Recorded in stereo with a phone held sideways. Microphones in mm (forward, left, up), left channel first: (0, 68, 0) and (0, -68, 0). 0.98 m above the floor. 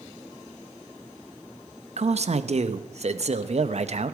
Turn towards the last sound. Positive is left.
turn(degrees=-55)  # may be behind; listen again after turning